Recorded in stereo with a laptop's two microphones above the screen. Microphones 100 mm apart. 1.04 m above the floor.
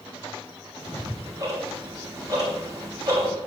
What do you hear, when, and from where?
0.8 s ticking: 30° right (ahead or behind), 1.6 m